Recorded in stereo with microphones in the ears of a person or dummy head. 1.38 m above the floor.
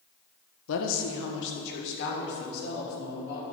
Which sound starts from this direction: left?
A woman speaking, at 0.7 s.